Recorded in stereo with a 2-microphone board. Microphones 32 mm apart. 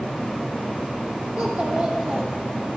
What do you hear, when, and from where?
1.4 s a child speaking: 45° right (ahead or behind), 3 m